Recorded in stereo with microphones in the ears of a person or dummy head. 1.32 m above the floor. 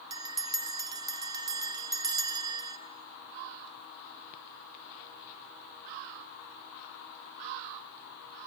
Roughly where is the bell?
Right.